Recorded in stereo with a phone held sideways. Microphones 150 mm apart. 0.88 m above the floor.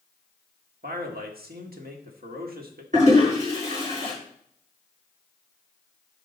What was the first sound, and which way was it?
A man speaking, 80° right.